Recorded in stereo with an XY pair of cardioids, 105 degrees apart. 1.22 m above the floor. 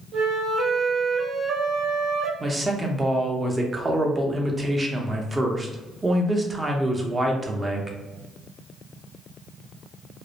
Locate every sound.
0.1 s a flute: 70° right, 0.7 m
2.4 s a man speaking: 20° right, 0.7 m